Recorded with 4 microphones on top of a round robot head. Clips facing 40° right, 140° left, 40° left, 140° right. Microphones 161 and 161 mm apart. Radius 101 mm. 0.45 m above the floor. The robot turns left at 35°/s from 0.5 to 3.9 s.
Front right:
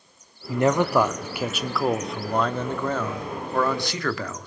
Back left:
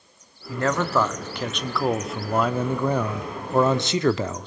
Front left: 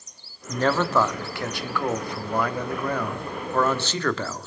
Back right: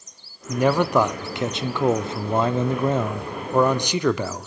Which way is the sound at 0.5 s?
80° right.